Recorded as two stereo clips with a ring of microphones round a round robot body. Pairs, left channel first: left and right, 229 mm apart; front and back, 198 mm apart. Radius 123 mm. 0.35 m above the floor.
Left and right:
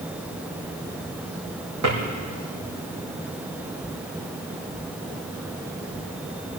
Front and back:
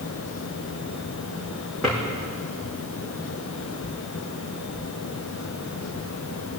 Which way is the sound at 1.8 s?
90° right.